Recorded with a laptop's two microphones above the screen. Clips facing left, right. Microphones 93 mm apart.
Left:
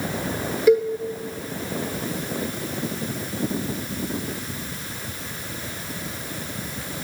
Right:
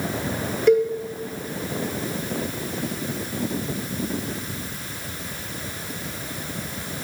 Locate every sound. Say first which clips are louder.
0.7 s a cowbell: even; 5° left (ahead or behind), 1.5 m